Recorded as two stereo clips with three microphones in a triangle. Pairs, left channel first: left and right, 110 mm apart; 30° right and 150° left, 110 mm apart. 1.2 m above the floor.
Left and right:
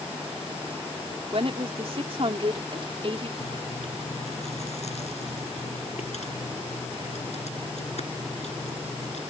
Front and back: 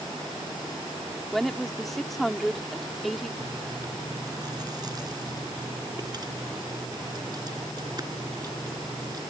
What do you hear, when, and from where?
1.3 s a woman speaking: 120° right
3.4 s chewing: 95° left